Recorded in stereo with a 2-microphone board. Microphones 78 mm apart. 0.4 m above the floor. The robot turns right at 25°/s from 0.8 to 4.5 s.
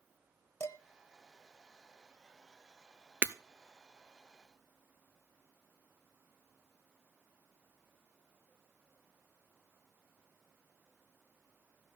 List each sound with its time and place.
0.6 s dishes clattering: 40° left (ahead or behind), 0.9 m
3.2 s breaking glass: 25° right (ahead or behind), 0.6 m; by 3.4 s 30° right (ahead or behind), 0.6 m